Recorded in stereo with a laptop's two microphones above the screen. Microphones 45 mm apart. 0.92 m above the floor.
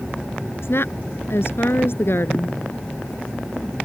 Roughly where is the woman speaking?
Left.